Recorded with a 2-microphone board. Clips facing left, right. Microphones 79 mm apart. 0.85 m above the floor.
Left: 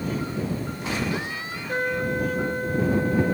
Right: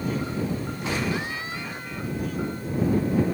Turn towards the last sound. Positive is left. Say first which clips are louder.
# left 8 dB
turn(degrees=65)  # may be behind; listen again after turning